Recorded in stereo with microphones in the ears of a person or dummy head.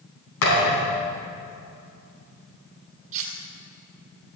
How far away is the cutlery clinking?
About 2.5 m.